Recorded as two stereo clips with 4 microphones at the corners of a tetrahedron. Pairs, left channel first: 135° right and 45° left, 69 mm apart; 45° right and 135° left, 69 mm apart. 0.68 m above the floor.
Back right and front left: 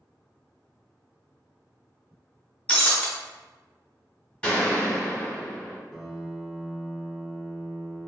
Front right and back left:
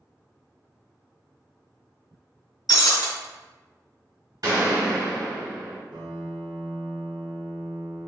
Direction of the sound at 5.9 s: 135° left.